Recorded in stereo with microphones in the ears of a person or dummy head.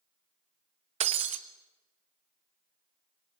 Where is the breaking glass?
35° right (ahead or behind), 1.3 m.